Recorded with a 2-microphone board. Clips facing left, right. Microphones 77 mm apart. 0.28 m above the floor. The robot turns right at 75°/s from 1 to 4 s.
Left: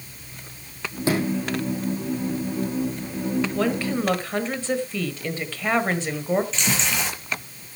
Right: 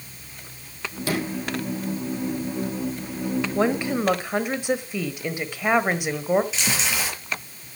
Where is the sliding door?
25° left, 4.5 m; by 1.5 s 55° left, 4.5 m.